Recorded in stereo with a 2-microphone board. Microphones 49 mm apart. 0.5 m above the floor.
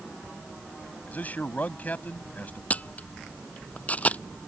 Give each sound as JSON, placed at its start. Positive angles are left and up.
{"t": 1.1, "sound": "a man speaking", "side_deg": 35}
{"t": 2.7, "sound": "a camera shutter", "side_deg": 35}